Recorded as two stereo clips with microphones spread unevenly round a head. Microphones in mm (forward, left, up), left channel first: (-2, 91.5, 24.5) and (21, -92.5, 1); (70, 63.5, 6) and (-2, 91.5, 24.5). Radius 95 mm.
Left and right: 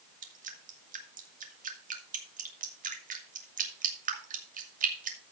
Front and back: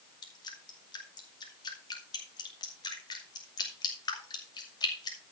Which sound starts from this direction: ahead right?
Dripping, at 0.2 s.